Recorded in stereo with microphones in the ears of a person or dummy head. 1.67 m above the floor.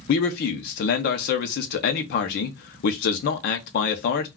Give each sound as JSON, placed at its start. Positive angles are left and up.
{"t": 0.1, "sound": "a man speaking", "side_deg": 50, "distance_m": 0.6}